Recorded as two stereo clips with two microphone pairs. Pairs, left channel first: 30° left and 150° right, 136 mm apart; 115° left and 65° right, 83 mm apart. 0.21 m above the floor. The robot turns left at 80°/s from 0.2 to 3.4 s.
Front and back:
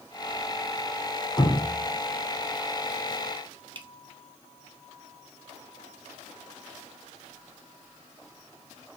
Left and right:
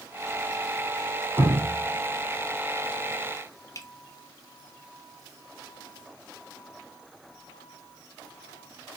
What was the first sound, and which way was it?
Dripping, 40° right.